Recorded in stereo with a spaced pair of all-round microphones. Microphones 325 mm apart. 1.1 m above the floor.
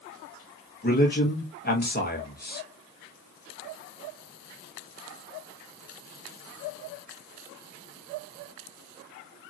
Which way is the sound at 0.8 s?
30° left (ahead or behind).